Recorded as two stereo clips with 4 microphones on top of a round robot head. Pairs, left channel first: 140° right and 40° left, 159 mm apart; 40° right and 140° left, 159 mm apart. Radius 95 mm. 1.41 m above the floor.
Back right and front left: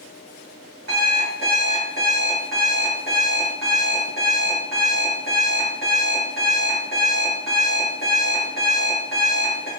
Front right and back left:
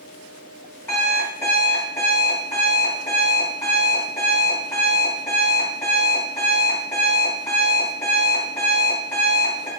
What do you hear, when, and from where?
0.9 s an alarm clock: 35° left, 1.4 m